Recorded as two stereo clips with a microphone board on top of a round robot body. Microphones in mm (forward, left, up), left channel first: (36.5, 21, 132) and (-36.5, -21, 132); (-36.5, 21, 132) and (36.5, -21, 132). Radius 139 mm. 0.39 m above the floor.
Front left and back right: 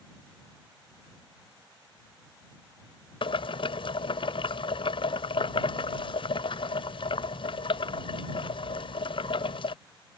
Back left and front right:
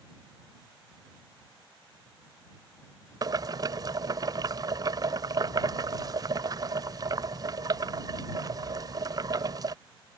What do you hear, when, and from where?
3.2 s boiling: 15° left